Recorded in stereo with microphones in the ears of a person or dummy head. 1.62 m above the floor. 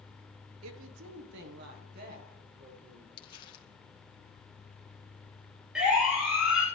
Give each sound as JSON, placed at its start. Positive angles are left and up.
{"t": 0.6, "sound": "a woman speaking", "side_deg": -75, "distance_m": 1.1}
{"t": 3.2, "sound": "crumpling", "side_deg": 30, "distance_m": 1.9}
{"t": 5.8, "sound": "a siren", "side_deg": -5, "distance_m": 8.0}